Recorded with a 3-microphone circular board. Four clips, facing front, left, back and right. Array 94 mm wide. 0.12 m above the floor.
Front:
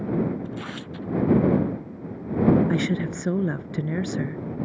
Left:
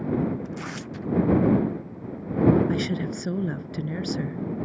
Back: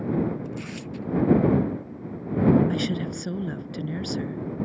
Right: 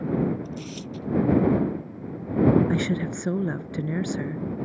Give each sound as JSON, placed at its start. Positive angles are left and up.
{"t": 0.5, "sound": "tearing paper", "azimuth_deg": 55}
{"t": 2.7, "sound": "a woman speaking", "azimuth_deg": -25}